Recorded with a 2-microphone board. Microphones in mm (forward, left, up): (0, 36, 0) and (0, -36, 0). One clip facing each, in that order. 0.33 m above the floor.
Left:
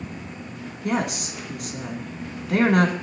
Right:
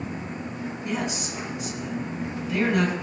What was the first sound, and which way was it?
A woman speaking, 70° left (ahead or behind).